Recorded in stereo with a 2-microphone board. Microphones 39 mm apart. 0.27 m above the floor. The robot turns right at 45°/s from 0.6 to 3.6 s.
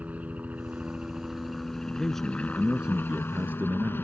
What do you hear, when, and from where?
0.0 s a helicopter: 45° right; by 4.0 s 90° left
1.9 s a man speaking: 155° left; by 4.0 s 125° right